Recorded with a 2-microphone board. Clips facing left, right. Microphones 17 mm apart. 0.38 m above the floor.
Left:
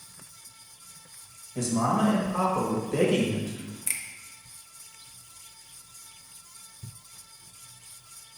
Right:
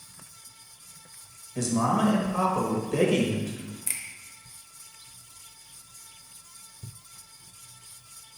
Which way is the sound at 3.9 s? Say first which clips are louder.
Left 2 dB; centre (ahead or behind).